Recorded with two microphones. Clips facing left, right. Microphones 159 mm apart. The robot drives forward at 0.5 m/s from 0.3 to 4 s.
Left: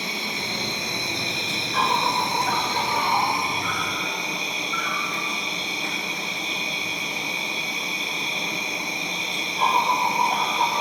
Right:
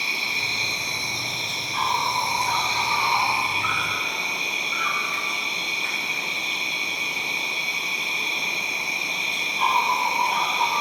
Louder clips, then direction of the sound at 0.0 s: Left 4 dB; 50° left (ahead or behind).